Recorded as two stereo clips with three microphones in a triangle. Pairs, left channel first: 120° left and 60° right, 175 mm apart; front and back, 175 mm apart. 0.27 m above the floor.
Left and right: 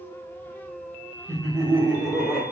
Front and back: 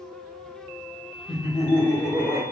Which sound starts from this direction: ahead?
Laughter, at 1.3 s.